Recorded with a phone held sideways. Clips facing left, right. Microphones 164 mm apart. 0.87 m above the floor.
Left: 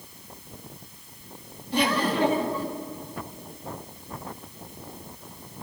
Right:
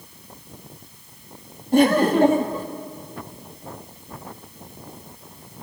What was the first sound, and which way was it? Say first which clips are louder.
Laughter: right 9 dB; 45° right (ahead or behind).